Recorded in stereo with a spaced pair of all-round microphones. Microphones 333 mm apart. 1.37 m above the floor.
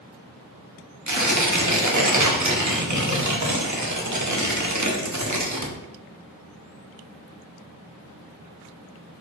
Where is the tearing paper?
55° right (ahead or behind), 1.1 m.